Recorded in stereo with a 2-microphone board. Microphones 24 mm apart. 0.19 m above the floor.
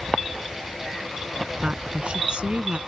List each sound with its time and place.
1.6 s a woman speaking: 50° right (ahead or behind)